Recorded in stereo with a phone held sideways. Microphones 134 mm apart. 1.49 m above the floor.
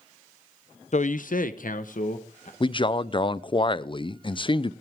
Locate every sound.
0.9 s a man speaking: 55° left (ahead or behind), 0.6 m; by 2.5 s 60° left (ahead or behind), 1.5 m
2.6 s a man speaking: 35° left (ahead or behind), 0.5 m